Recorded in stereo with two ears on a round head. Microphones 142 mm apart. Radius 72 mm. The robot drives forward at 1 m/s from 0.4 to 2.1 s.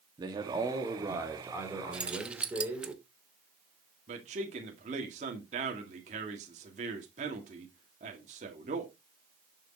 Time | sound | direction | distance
0.2 | a man speaking | 25° right (ahead or behind) | 1.8 m
1.9 | keys jangling | 5° right (ahead or behind) | 1.1 m
4.1 | a man speaking | 45° right (ahead or behind) | 2 m